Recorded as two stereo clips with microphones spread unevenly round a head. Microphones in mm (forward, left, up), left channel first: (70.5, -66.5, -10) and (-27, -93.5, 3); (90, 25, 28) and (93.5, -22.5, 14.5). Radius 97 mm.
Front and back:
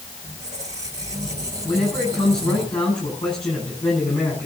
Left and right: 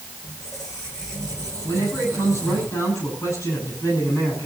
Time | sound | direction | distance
0.2 | a squeak | 145° left | 3.5 m
1.6 | a man speaking | 80° left | 10 m